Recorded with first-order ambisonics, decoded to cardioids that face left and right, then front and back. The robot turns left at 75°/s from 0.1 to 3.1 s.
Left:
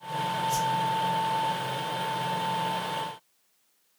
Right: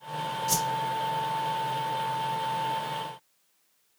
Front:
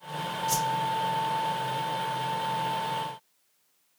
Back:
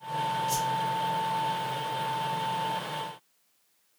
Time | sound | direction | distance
0.5 | a whoosh | 70° right | 0.7 m